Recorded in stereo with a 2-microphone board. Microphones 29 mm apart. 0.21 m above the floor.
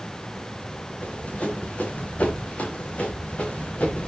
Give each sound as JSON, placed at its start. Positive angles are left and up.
{"t": 1.0, "sound": "running footsteps", "side_deg": 50, "distance_m": 7.0}